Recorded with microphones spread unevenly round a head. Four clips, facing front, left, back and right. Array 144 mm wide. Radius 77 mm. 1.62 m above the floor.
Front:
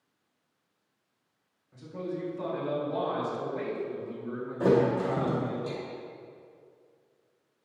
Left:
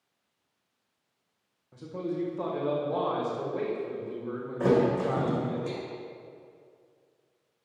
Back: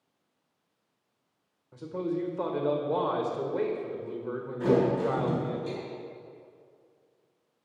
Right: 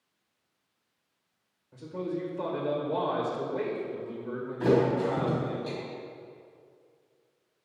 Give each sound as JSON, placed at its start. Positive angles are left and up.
{"t": 1.7, "sound": "a man speaking", "azimuth_deg": 165, "distance_m": 1.7}
{"t": 4.6, "sound": "a thud", "azimuth_deg": 45, "distance_m": 2.5}